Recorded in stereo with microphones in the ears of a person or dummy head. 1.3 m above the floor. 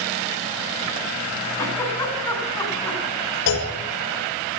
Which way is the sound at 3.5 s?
70° left (ahead or behind).